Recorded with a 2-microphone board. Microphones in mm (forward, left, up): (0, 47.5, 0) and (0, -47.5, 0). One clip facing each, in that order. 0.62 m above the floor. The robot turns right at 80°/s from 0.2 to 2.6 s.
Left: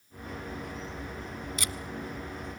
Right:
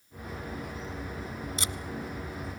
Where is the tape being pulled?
30° right (ahead or behind), 1.0 m; by 1.7 s 20° right (ahead or behind), 1.0 m.